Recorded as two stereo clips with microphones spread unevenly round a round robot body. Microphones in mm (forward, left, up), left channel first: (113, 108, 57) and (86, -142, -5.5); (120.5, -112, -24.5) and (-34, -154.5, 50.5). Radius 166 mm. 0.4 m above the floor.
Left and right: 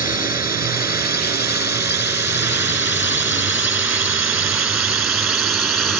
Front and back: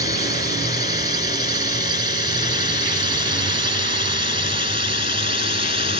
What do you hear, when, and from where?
0.0 s a drone: 20° right; by 6.0 s 10° right